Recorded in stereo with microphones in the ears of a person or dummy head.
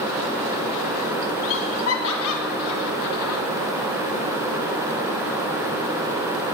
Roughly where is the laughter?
Left.